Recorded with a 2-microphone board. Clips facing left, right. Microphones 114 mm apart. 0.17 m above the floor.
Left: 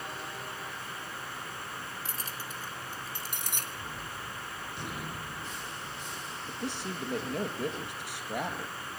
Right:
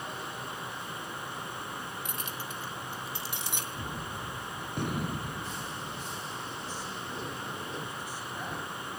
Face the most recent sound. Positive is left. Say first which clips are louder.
# left 2 dB
turn(degrees=75)  # may be behind; listen again after turning